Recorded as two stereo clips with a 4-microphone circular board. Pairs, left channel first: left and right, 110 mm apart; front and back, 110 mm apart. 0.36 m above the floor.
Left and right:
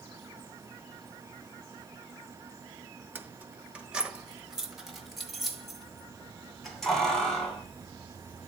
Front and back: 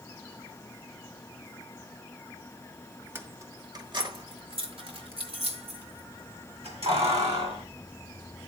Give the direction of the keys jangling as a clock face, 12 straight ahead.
5 o'clock.